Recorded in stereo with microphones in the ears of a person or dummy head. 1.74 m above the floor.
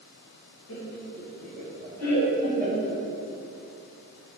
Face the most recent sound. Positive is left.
turn(degrees=45)  # may be behind; listen again after turning